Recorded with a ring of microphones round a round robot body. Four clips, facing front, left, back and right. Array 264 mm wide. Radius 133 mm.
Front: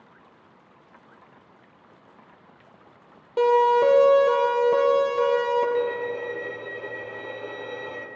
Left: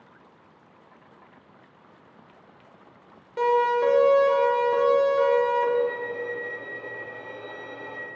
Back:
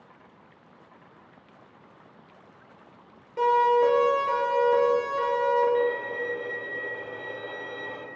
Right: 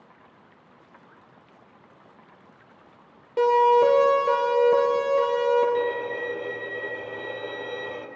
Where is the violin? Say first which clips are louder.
Even, even; 55° right, 1.3 m.